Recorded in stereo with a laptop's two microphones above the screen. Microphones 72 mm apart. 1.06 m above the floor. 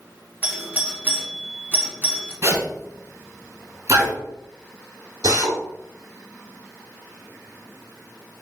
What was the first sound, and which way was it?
A doorbell, 25° right (ahead or behind).